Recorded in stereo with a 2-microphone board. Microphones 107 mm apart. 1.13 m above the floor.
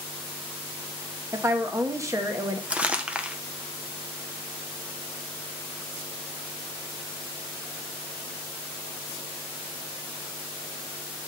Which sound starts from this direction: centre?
Crumpling, at 2.7 s.